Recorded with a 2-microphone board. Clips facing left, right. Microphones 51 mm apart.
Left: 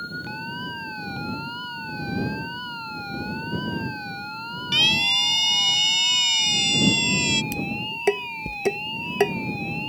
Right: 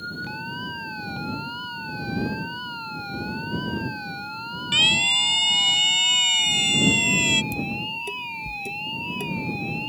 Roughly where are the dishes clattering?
Left.